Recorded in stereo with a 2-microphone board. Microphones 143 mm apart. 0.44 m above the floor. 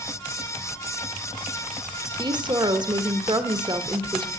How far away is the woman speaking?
About 1.0 m.